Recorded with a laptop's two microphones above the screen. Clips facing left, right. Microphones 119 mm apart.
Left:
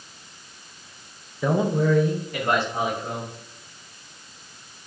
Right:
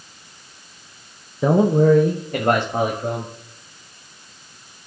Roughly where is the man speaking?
Right.